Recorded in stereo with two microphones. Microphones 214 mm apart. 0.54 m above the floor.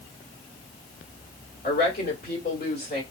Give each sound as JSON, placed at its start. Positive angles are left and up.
{"t": 1.6, "sound": "a woman speaking", "side_deg": 45, "distance_m": 1.8}